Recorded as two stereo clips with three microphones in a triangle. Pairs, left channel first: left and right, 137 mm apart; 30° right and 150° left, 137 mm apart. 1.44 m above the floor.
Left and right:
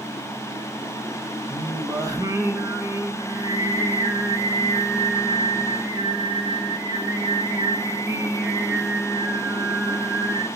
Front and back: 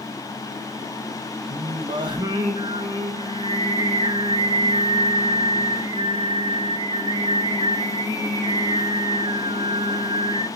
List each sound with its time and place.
1.5 s singing: 155° right, 1.6 m